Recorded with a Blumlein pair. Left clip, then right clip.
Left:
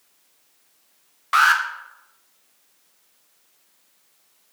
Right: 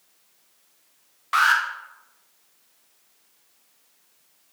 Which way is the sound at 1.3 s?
10° left.